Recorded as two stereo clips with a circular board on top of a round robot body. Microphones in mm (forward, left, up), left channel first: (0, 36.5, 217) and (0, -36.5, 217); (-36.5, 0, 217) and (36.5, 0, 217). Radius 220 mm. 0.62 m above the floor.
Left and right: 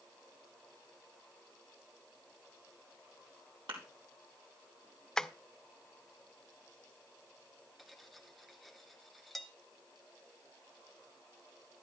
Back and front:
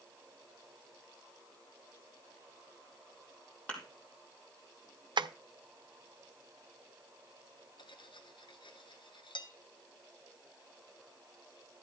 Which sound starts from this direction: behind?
Cutlery clinking, at 7.8 s.